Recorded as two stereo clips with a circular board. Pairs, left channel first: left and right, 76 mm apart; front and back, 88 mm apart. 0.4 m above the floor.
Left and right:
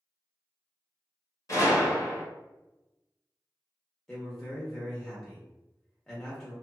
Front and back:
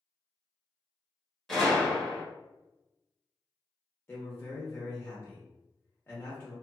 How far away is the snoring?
No snoring in this recording.